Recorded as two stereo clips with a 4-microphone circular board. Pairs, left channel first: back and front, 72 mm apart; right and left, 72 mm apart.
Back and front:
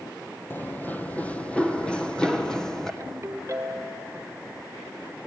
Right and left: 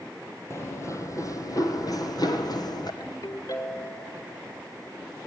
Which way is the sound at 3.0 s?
50° right.